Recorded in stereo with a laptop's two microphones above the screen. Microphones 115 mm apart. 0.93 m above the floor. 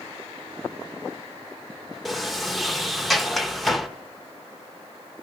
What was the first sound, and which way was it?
A sliding door, centre (ahead or behind).